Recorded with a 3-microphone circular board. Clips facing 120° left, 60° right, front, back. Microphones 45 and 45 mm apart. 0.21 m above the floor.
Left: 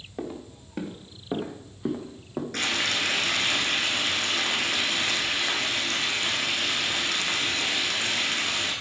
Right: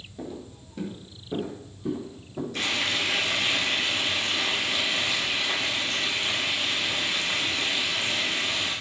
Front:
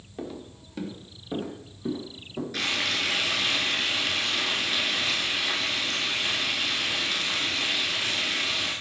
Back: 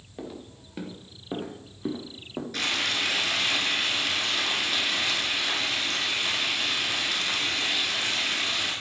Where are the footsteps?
95° left, 2.5 m; by 2.4 s 135° left, 3.5 m.